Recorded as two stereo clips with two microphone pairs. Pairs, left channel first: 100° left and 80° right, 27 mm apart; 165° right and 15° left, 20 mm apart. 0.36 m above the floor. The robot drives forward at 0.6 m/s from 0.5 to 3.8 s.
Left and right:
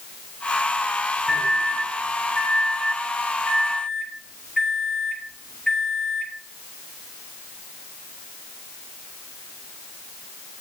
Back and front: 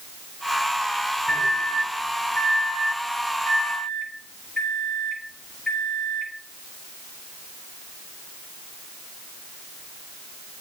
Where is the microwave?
160° left, 4 m; by 6.3 s 165° left, 5.5 m.